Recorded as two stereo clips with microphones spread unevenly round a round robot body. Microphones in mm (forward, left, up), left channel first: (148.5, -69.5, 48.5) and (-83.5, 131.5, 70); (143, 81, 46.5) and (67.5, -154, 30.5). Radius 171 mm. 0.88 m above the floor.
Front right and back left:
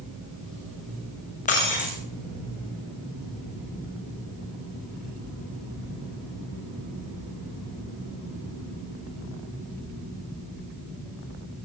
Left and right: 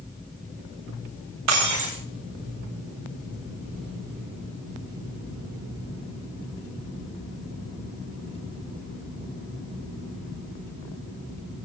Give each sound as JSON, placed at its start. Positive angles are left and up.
{"t": 1.5, "sound": "breaking glass", "azimuth_deg": -110, "distance_m": 9.0}